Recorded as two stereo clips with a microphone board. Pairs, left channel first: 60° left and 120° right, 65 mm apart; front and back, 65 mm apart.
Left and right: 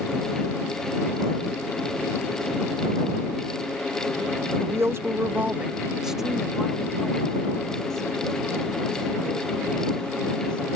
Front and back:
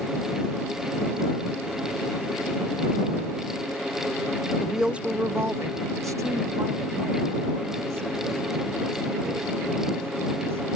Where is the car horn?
I don't hear a car horn.